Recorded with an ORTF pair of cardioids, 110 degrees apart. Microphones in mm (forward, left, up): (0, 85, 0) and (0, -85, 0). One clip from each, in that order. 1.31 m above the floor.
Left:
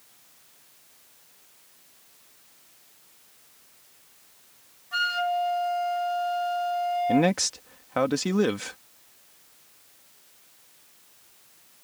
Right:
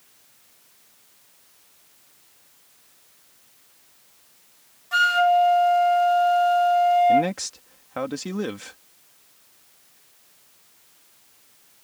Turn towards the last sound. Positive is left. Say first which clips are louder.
# right 3 dB
turn(degrees=25)